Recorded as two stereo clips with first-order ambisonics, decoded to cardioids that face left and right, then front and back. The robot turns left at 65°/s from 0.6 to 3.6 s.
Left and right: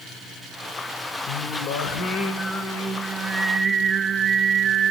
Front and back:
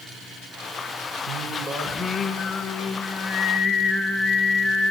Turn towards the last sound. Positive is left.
turn(degrees=-25)